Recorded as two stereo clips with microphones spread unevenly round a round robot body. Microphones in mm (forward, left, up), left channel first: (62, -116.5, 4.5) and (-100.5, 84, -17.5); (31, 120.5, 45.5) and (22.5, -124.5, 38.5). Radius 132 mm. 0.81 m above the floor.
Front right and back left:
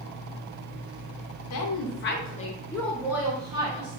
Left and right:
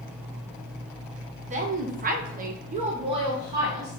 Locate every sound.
1.5 s a woman speaking: 40° right, 0.8 m; by 4.0 s 170° right, 1.2 m